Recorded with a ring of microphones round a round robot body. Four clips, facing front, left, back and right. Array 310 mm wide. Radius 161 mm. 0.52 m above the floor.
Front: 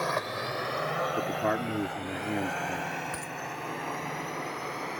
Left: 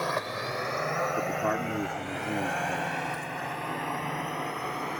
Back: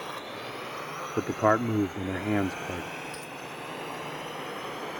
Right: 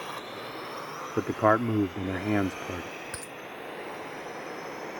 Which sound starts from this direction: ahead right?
A dropped coin, at 3.1 s.